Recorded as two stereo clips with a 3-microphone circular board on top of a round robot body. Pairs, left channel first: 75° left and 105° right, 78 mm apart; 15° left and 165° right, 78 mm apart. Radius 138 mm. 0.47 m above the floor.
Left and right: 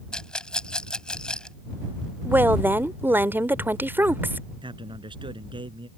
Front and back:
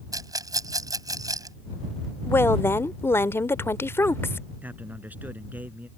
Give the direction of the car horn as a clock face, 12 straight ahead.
I don't hear a car horn.